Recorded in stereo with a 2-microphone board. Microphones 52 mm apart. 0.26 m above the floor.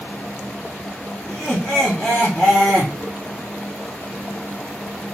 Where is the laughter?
15° left (ahead or behind), 1.4 m.